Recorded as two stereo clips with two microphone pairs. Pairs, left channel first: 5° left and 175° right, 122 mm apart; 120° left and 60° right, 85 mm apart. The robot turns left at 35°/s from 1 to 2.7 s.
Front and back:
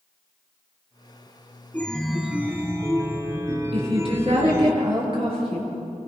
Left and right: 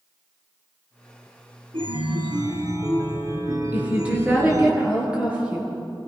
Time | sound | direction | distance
1.7 | a chime | 70° right | 2.5 m
3.7 | a woman speaking | 130° right | 7.5 m